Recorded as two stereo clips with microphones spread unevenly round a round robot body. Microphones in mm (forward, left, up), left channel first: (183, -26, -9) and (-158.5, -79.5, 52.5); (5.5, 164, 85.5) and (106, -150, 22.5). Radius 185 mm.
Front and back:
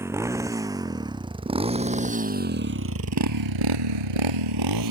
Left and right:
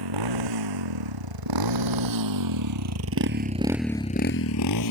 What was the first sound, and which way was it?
A motorcycle, 90° right.